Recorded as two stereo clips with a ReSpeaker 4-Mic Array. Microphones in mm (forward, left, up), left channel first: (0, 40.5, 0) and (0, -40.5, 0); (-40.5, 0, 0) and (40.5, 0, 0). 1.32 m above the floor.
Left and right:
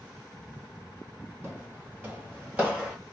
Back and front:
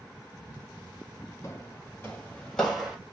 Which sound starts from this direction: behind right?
Footsteps, at 1.4 s.